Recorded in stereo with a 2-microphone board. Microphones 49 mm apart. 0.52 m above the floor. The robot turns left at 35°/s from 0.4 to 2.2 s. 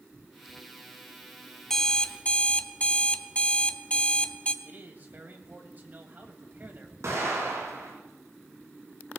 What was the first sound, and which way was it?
An alarm clock, 10° left (ahead or behind).